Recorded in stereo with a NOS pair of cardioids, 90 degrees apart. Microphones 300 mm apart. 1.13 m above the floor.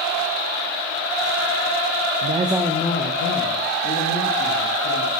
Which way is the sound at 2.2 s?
40° right.